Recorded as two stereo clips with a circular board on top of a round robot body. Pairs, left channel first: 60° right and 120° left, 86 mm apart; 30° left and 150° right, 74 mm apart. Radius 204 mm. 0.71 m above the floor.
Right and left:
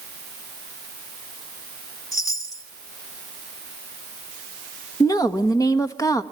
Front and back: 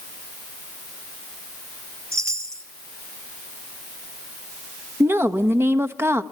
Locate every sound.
2.1 s a chime: 105° right, 2.0 m
5.0 s a woman speaking: 100° right, 1.5 m